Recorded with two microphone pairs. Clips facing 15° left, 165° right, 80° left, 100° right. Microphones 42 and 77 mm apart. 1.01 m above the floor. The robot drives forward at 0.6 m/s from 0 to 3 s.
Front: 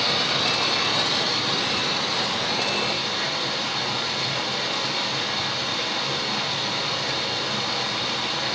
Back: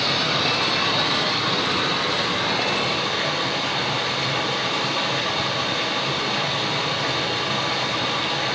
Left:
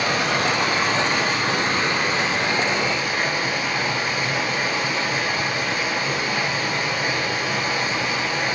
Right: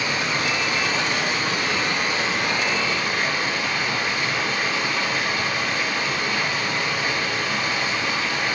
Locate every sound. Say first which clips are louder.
0.0 s running water: back 2 dB, left 3 dB; 110° left, 1.8 m; by 8.6 s 145° left, 3 m